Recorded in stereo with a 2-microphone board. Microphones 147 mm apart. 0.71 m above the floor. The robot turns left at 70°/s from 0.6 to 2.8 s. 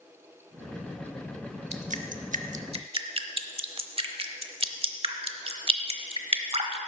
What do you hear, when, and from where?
1.7 s dripping: 50° right (ahead or behind), 0.8 m; by 6.8 s 40° right (ahead or behind), 0.8 m